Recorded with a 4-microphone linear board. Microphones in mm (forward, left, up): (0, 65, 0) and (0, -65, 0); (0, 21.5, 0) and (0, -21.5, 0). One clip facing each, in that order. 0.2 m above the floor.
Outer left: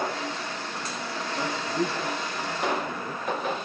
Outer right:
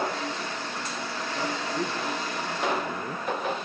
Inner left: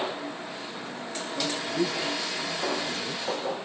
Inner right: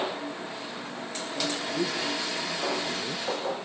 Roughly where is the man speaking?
Centre.